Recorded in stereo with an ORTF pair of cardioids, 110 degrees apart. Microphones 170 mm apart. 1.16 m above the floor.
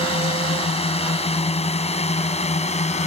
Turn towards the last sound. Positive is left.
turn(degrees=40)